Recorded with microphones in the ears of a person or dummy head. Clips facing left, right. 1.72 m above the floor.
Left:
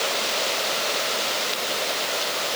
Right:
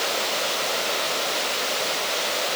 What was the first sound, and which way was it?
Only background noise.